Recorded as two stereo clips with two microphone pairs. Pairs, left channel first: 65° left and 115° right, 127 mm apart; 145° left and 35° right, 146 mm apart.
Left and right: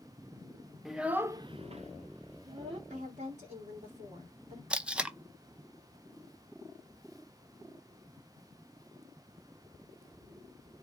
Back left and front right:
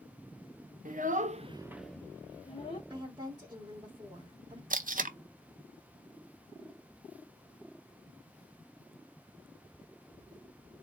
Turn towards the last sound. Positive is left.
turn(degrees=-35)